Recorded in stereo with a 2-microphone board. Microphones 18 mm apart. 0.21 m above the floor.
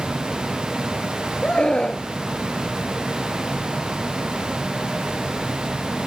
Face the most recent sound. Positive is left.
turn(degrees=50)  # may be behind; listen again after turning